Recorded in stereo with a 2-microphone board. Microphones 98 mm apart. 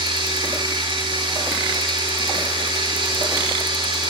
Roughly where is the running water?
Right.